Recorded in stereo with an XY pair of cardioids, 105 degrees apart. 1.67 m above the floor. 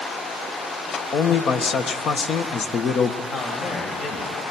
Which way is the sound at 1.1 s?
55° left.